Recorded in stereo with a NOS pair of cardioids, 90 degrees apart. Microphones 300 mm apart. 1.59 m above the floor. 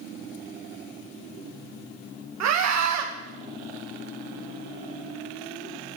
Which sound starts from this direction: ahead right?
A scream, at 2.4 s.